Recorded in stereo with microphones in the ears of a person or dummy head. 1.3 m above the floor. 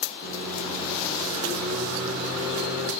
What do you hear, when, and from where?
0.2 s a microwave: 35° right (ahead or behind), 3 m